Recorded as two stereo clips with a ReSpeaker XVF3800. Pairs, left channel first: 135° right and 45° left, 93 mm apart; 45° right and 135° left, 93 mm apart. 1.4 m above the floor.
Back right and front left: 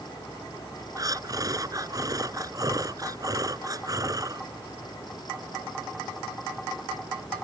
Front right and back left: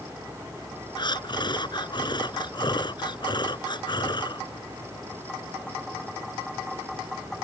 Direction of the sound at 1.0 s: 5° right.